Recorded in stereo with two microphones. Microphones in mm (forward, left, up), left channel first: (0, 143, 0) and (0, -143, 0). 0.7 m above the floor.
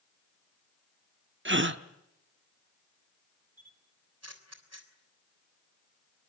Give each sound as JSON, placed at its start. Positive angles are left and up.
{"t": 1.4, "sound": "a gasp", "side_deg": -45, "distance_m": 1.0}
{"t": 3.6, "sound": "a camera shutter", "side_deg": -60, "distance_m": 3.5}